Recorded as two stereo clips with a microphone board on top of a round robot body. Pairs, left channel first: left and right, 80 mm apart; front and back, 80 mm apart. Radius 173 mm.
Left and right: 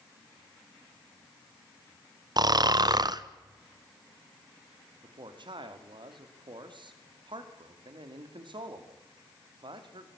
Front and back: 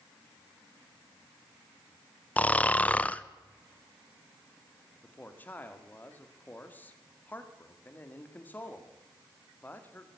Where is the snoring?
70° right, 1.0 m.